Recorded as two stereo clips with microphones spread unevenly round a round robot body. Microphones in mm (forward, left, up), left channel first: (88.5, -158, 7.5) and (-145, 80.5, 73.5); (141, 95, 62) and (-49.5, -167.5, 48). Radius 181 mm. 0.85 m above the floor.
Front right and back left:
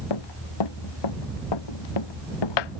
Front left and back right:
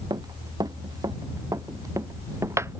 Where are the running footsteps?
45° right.